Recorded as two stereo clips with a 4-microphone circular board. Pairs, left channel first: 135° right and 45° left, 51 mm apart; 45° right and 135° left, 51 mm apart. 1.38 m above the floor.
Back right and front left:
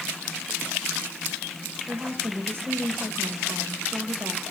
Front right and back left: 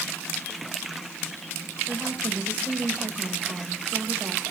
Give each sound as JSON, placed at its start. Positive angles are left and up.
{"t": 1.9, "sound": "a woman speaking", "azimuth_deg": 80, "distance_m": 5.0}